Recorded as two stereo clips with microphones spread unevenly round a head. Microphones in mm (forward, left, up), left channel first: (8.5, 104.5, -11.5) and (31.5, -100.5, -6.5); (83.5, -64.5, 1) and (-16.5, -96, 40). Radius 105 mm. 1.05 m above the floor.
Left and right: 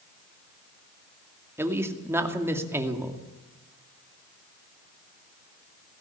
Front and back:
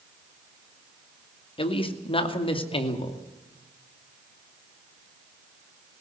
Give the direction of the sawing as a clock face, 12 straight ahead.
No sawing in this recording.